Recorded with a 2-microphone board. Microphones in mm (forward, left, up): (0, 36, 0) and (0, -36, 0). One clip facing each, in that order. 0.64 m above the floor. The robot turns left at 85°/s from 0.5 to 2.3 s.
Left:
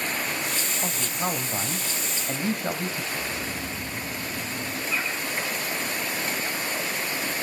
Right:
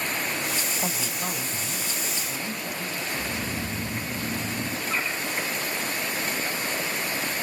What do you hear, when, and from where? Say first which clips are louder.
0.8 s a man speaking: left 1 dB; 175° right, 3 m; by 3.0 s 60° left, 3 m
3.1 s snoring: right 1 dB; 65° right (ahead or behind), 4.5 m
4.9 s a bird: even; 55° right (ahead or behind), 6.5 m